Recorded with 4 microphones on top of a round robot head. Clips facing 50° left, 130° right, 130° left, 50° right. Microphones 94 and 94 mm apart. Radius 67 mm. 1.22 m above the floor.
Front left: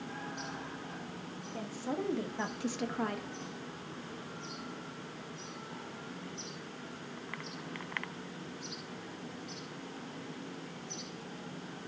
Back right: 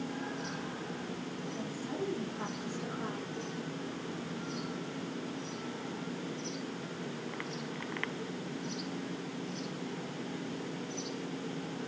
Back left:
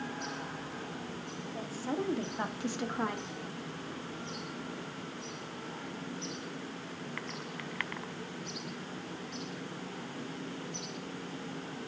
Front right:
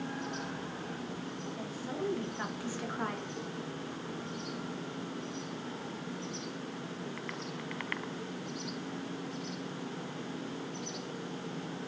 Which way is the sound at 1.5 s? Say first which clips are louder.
Front left 3 dB, back left 6 dB; 85° left.